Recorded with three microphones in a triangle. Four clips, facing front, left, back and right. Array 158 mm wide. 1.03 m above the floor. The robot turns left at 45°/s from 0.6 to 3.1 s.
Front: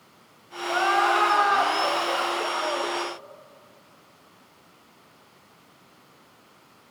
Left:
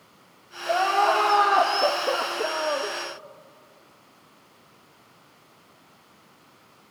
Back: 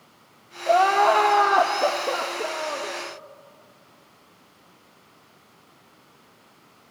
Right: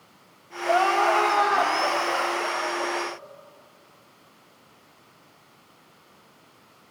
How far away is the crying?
About 1.2 m.